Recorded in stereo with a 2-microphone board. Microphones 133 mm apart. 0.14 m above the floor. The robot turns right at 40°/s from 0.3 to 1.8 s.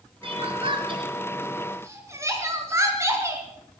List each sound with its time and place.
0.2 s crying: 45° right (ahead or behind), 2.5 m; by 3.5 s 20° right (ahead or behind), 2.5 m